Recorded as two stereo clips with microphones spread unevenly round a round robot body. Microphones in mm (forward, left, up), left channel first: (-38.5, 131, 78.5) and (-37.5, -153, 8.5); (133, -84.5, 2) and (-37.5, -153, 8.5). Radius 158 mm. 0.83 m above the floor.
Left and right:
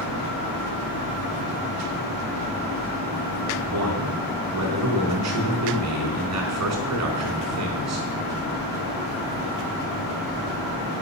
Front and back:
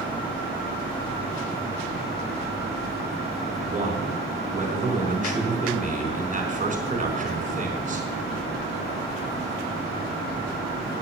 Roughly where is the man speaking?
Right.